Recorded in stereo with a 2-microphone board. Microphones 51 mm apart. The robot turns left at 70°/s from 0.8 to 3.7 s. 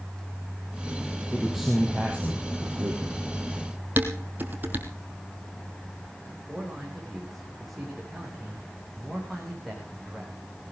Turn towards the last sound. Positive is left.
turn(degrees=0)  # may be behind; listen again after turning